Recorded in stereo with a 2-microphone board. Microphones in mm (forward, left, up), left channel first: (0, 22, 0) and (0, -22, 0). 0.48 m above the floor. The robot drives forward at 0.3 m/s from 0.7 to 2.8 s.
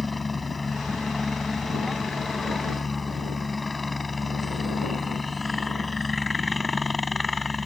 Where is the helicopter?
5° left (ahead or behind).